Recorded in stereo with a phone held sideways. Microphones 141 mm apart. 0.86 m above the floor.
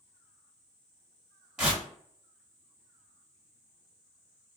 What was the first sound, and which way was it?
Tearing paper, 5° right (ahead or behind).